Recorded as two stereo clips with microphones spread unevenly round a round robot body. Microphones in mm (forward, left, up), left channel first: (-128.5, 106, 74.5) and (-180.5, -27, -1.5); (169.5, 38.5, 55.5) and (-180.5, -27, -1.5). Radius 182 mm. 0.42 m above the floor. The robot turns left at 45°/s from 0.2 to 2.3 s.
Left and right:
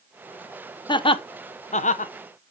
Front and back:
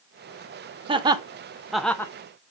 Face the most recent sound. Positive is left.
turn(degrees=95)